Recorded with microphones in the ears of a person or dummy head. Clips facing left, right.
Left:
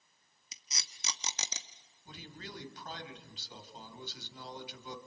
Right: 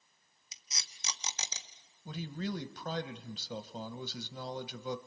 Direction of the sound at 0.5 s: 65° left (ahead or behind).